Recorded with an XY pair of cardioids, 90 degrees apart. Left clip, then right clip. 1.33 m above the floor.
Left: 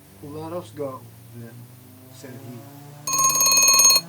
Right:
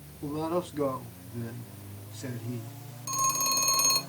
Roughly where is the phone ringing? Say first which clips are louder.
Left 8 dB; left.